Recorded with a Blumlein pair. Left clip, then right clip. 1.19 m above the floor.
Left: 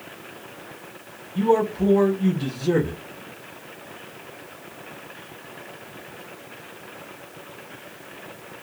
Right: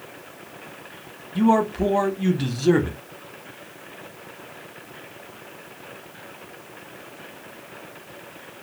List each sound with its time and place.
1.4 s a man speaking: 35° right, 1.0 m